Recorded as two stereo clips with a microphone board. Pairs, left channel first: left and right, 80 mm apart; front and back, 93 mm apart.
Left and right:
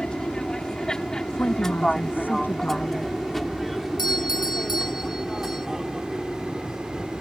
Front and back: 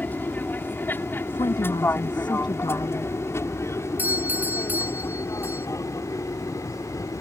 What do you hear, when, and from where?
0.0 s an aircraft: 30° left; by 7.2 s 10° right
1.3 s a woman speaking: 25° left
4.0 s a doorbell: 110° left